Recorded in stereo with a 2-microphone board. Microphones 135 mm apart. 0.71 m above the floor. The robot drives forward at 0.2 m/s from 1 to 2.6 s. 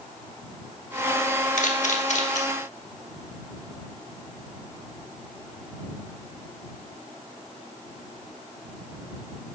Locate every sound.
1.6 s a camera shutter: 70° left (ahead or behind), 1.1 m; by 2.4 s 65° left (ahead or behind), 1.2 m